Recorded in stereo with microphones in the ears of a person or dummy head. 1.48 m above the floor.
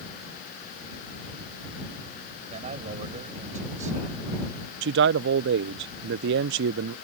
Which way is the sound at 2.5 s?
40° right (ahead or behind).